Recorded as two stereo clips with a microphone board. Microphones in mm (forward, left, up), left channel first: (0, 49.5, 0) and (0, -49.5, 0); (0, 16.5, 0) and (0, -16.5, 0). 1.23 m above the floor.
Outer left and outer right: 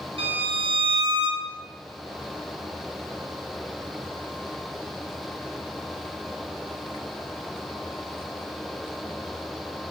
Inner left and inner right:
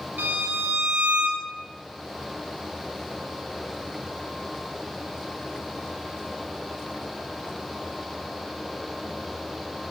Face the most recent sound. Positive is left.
turn(degrees=-70)  # may be behind; listen again after turning